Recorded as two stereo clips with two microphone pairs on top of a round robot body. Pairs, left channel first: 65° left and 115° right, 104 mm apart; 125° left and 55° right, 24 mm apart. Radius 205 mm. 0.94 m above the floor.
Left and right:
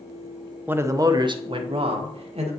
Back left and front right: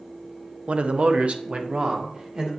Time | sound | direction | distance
0.7 | a man speaking | 40° right | 0.9 m